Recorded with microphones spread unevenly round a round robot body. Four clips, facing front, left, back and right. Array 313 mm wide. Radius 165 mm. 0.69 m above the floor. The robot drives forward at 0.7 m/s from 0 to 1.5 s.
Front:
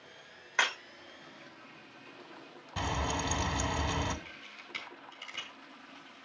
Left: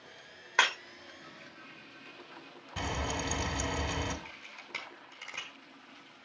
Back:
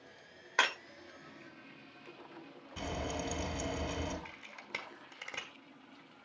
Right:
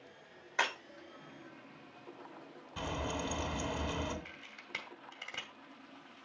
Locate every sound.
0.6 s breaking glass: 100° left, 5.5 m
2.8 s frying: 40° left, 2.5 m
4.2 s a camera shutter: 170° left, 1.4 m